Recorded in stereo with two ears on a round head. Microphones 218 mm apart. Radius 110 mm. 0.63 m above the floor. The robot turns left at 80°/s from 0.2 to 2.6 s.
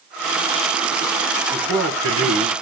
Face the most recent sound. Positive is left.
turn(degrees=-110)